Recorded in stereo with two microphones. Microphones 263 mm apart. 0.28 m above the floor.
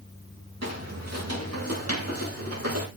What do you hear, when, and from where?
0.6 s footsteps: 75° right (ahead or behind), 6 m; by 2.9 s 60° right (ahead or behind), 7.5 m